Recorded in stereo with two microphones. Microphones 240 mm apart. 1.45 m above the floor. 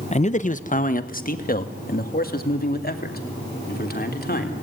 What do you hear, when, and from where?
0.1 s a man speaking: 30° left (ahead or behind), 0.8 m; by 4.6 s 40° left (ahead or behind), 4 m